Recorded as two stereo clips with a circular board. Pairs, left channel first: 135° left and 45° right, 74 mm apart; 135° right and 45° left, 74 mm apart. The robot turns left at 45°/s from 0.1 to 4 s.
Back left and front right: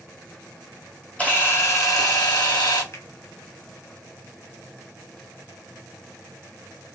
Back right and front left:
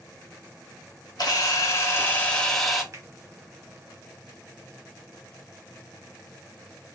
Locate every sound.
1.2 s a camera shutter: 155° right, 1.0 m; by 2.8 s 130° left, 1.0 m
2.9 s a finger snap: 85° left, 1.1 m; by 3.0 s 80° left, 1.1 m